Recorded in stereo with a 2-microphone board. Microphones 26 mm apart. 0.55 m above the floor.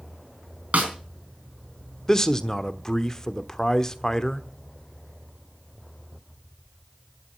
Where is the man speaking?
25° left (ahead or behind), 1.1 m.